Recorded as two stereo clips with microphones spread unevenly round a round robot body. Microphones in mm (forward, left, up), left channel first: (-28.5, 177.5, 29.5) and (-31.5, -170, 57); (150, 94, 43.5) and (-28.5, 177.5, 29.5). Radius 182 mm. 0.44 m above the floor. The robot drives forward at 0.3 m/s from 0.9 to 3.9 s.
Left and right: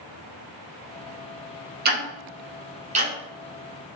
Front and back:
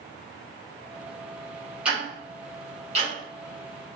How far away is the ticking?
About 0.6 m.